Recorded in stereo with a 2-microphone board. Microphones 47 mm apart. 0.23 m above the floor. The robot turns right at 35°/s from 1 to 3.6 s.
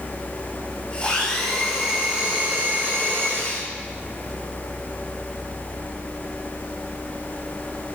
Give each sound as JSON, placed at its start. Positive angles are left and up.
{"t": 1.0, "sound": "a blender", "azimuth_deg": 160, "distance_m": 2.5}